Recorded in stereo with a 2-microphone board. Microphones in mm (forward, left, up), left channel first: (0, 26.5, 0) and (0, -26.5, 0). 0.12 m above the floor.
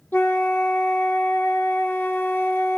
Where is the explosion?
No explosion in this recording.